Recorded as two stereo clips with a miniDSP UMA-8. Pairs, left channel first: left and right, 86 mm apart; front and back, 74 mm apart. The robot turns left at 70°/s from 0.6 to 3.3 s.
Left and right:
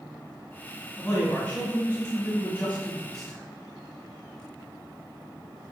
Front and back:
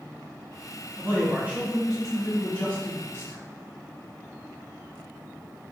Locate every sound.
1.0 s a man speaking: 175° left, 1.1 m; by 3.4 s 10° left, 1.1 m